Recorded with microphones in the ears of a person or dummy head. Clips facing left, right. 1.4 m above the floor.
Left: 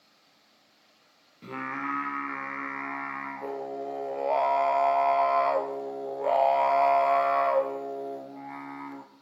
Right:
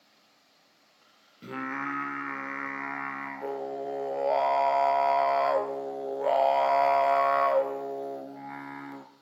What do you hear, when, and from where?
1.4 s singing: 10° right (ahead or behind), 0.6 m